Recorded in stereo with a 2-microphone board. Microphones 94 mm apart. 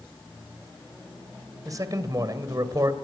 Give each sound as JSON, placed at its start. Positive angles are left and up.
{"t": 1.6, "sound": "a man speaking", "side_deg": -40, "distance_m": 2.5}